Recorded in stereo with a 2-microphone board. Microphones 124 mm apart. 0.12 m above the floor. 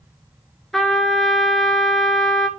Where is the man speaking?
No man speaking in this recording.